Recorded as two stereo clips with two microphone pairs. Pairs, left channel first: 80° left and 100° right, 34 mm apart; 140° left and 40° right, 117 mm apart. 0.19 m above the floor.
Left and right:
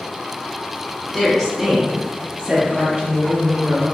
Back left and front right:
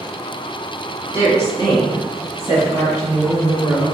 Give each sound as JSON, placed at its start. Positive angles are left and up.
{"t": 1.1, "sound": "a woman speaking", "azimuth_deg": 20, "distance_m": 1.2}